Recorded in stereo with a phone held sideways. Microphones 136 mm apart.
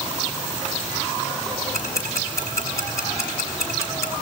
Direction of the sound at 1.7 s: 20° left (ahead or behind).